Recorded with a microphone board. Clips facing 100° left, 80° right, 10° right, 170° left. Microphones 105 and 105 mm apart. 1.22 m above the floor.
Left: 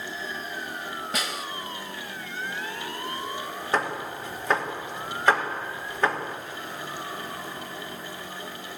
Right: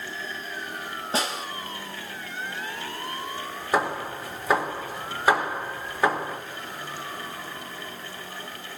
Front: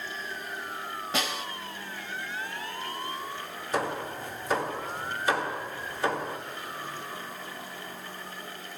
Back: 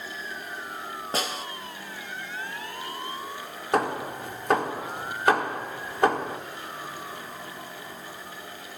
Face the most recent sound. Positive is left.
turn(degrees=-160)